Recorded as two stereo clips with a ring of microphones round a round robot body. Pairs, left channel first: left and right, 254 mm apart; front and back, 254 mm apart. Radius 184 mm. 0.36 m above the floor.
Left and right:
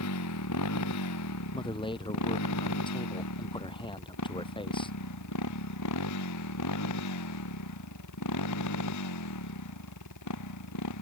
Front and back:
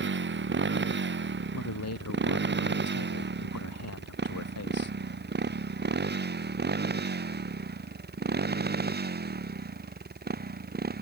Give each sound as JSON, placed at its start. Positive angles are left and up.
{"t": 0.0, "sound": "a motorcycle", "azimuth_deg": 135}
{"t": 1.5, "sound": "a man speaking", "azimuth_deg": 20}